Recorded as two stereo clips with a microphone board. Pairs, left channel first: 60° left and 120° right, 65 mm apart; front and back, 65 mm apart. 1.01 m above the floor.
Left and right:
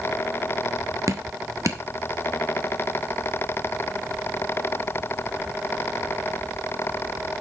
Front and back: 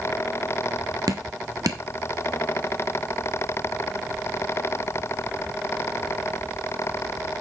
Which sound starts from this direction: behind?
Dripping, at 1.1 s.